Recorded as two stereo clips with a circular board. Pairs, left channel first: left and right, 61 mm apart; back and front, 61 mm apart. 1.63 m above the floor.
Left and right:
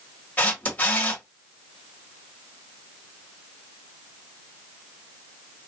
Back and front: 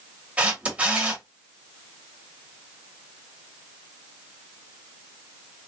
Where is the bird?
I don't hear a bird.